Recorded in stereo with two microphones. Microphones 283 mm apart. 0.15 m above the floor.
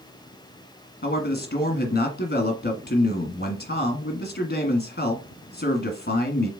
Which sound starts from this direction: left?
A man speaking, at 1.0 s.